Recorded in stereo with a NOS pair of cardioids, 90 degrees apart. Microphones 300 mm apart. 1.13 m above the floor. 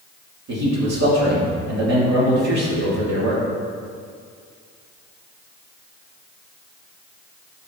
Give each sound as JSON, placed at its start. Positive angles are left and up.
{"t": 0.5, "sound": "a man speaking", "azimuth_deg": -70, "distance_m": 2.5}